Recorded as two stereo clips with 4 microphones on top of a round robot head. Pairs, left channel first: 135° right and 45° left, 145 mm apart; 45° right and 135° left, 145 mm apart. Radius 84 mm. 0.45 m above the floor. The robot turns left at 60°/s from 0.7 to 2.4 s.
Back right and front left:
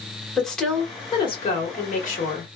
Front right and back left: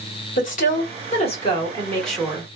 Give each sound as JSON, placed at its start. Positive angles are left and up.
{"t": 0.4, "sound": "a woman speaking", "azimuth_deg": -50, "distance_m": 1.7}